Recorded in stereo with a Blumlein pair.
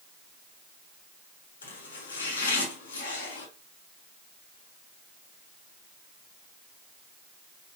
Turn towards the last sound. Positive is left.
turn(degrees=70)